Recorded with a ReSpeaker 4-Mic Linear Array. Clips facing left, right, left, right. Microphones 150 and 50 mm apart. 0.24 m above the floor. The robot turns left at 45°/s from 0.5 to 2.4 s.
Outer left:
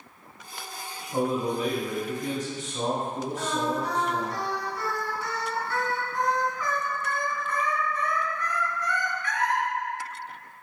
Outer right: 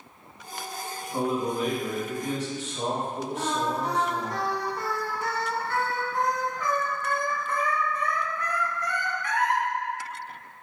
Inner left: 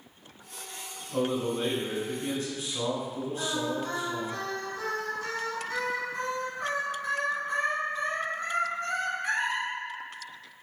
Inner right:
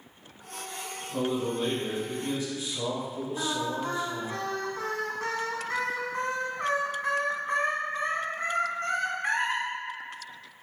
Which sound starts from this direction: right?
Singing, at 3.4 s.